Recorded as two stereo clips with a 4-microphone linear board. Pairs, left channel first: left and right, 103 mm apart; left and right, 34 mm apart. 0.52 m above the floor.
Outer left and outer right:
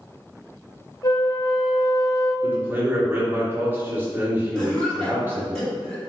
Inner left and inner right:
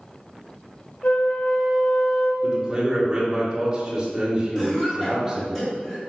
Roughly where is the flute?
Left.